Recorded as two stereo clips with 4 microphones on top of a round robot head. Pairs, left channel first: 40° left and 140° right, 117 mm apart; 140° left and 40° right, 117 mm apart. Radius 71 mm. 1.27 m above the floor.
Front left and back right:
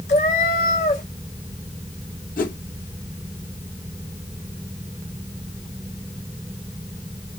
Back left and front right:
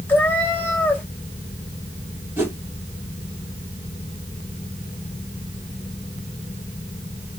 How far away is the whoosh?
About 2 m.